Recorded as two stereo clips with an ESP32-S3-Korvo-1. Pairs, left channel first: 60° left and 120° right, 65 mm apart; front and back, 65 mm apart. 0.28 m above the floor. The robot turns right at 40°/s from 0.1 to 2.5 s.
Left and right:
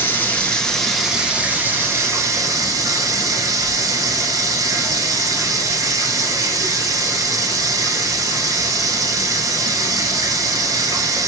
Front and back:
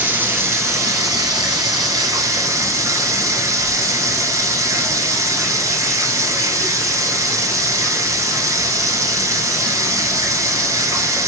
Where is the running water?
120° left, 1.0 m; by 11.3 s 145° right, 1.0 m.